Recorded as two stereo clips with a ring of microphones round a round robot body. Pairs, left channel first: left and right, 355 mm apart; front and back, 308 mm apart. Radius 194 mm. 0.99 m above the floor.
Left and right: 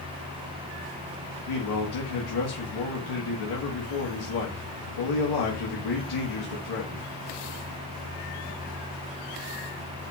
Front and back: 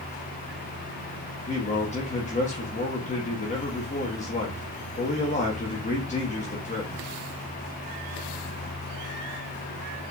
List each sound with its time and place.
1.5 s a man speaking: 70° left, 1.2 m